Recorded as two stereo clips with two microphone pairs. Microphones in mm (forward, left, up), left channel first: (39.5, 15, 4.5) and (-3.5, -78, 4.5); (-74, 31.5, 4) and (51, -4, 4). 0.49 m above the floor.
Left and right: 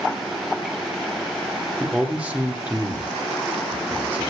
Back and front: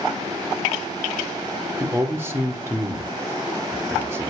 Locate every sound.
1.8 s a man speaking: 60° right, 1.1 m